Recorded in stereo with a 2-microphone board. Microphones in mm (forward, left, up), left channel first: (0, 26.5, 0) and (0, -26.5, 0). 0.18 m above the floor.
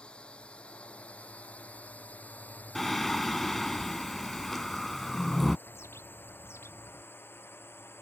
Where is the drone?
20° left (ahead or behind); by 8.0 s 45° left (ahead or behind).